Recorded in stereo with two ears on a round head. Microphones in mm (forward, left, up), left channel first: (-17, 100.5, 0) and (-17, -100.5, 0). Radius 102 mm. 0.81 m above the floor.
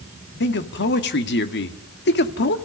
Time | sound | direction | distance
0.4 | a man speaking | 50° left (ahead or behind) | 1.9 m